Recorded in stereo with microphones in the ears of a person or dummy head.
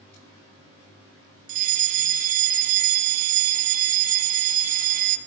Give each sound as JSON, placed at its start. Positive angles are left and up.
{"t": 1.5, "sound": "a fire alarm", "side_deg": -45, "distance_m": 2.0}